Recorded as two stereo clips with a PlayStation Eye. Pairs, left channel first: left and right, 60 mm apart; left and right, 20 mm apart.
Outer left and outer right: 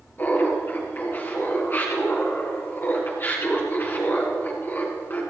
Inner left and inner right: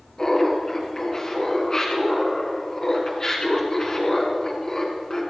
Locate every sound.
0.2 s laughter: 35° left (ahead or behind), 2 m